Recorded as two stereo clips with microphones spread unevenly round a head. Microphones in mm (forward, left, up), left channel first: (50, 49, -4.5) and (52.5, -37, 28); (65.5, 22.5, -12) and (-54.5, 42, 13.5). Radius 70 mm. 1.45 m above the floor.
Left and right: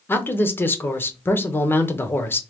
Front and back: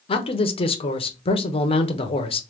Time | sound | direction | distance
0.1 | a man speaking | 30° left | 0.9 m